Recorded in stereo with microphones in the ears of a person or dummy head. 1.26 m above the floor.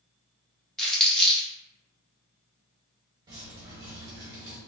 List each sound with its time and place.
0.8 s crumpling: centre (ahead or behind), 0.9 m
3.3 s dripping: 25° right (ahead or behind), 0.8 m